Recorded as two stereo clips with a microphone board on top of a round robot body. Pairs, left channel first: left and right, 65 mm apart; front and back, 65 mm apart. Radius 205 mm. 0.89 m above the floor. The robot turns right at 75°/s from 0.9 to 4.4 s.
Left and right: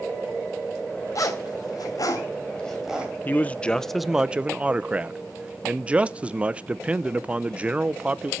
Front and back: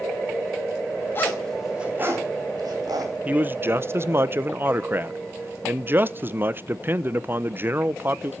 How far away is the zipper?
About 3 m.